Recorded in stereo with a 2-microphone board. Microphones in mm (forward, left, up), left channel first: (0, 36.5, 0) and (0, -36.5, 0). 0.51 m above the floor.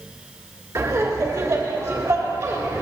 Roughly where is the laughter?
Right.